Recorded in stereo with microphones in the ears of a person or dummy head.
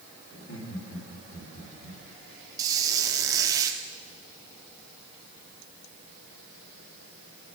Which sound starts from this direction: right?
A squeak, at 2.6 s.